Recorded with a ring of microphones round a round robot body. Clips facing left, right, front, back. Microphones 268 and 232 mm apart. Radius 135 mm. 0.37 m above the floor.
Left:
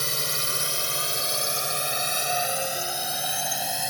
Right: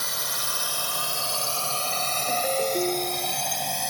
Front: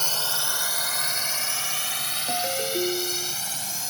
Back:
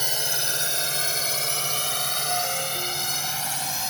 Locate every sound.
0.0 s a drone: 110° left; by 3.9 s 175° left
2.3 s a ringtone: 40° right